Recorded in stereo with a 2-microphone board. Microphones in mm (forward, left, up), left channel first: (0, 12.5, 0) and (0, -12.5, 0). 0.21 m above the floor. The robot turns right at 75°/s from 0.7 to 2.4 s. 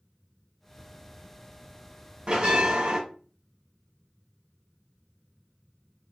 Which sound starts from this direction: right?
A bell, at 2.3 s.